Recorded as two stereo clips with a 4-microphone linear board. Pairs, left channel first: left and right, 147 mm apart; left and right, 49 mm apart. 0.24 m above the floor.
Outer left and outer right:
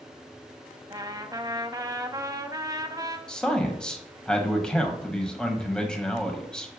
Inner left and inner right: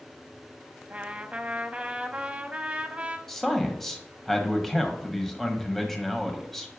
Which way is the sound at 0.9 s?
25° right (ahead or behind).